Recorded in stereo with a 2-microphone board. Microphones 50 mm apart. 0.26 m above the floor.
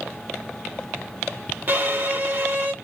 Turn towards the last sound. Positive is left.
turn(degrees=-40)  # may be behind; listen again after turning